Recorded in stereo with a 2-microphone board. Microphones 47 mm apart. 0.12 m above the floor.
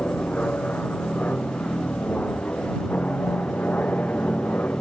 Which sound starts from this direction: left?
An aircraft, at 0.0 s.